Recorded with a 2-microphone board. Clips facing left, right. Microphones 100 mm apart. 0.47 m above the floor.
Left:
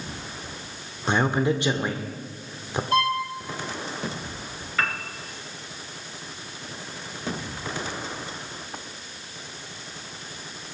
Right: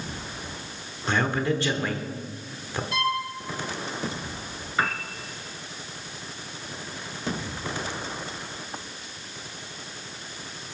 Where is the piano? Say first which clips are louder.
Right 1 dB; 15° right (ahead or behind), 2 m.